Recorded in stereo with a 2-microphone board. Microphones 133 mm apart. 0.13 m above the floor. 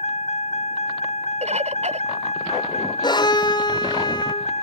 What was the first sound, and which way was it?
A vehicle, 55° left (ahead or behind).